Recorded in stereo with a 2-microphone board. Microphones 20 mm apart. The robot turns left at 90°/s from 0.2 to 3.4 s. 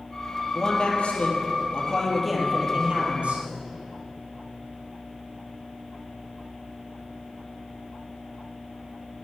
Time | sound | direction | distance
0.5 | a man speaking | 160° left | 3 m